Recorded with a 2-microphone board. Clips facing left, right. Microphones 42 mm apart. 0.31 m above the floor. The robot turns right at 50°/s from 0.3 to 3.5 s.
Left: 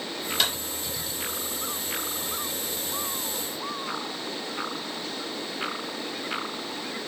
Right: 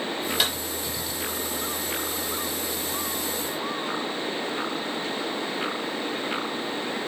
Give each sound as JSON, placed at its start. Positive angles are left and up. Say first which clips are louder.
{"t": 0.4, "sound": "a clap", "louder": "even", "side_deg": -10, "distance_m": 4.5}